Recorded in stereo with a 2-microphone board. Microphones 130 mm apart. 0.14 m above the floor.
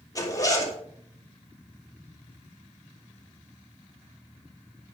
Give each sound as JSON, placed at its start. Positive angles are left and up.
{"t": 0.1, "sound": "a zipper", "side_deg": 30, "distance_m": 3.5}